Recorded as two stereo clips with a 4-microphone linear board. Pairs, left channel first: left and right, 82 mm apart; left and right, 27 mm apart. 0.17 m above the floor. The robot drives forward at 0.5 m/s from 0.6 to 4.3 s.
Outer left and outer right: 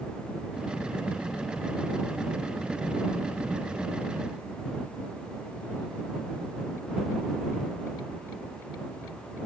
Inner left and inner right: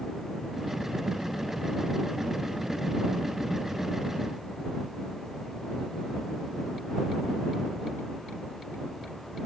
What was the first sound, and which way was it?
Only background noise.